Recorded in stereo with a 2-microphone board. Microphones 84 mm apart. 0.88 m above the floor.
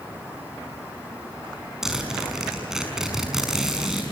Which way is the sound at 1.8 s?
5° right (ahead or behind).